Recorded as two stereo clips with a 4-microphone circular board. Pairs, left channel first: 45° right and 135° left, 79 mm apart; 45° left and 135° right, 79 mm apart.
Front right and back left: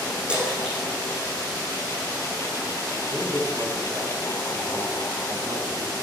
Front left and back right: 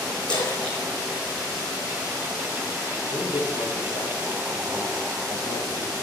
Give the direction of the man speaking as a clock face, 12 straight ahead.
10 o'clock.